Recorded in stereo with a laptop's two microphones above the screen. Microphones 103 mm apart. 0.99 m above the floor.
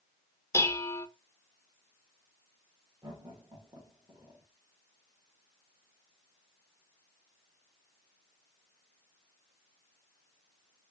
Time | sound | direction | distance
0.5 | dishes clattering | 25° left (ahead or behind) | 0.5 m
3.0 | laughter | 50° right (ahead or behind) | 1.2 m